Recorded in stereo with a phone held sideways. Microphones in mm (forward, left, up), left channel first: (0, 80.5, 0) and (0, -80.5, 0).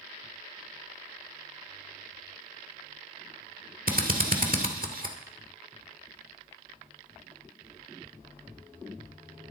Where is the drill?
60° right (ahead or behind), 2.0 m.